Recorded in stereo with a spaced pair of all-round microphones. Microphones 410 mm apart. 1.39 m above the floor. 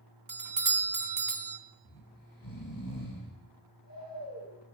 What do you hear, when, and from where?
0.3 s a doorbell: 50° right (ahead or behind), 0.8 m
1.9 s snoring: 55° left (ahead or behind), 4.5 m